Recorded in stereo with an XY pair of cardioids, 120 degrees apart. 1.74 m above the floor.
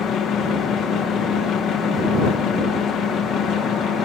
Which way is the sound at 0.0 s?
60° left.